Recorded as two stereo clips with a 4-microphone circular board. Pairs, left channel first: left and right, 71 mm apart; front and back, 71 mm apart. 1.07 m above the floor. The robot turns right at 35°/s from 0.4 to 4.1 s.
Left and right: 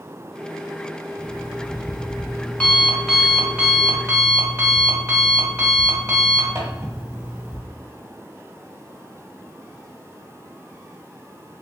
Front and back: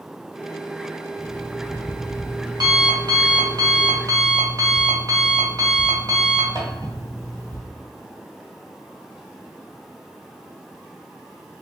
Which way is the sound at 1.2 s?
115° left.